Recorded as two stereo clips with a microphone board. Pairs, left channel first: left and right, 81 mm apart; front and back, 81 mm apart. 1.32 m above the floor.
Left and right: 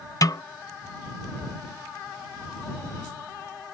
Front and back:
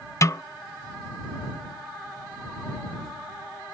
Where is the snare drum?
50° left.